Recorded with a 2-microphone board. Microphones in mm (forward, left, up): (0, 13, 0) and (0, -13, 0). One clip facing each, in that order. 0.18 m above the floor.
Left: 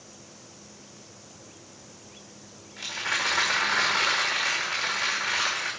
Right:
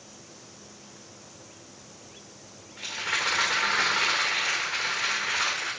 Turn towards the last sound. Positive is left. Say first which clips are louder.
# left 1 dB
turn(degrees=80)